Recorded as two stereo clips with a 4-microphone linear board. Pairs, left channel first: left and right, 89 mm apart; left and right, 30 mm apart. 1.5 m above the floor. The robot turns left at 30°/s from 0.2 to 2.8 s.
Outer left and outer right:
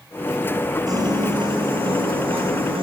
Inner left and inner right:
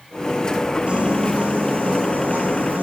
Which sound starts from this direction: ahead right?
A piano, at 0.9 s.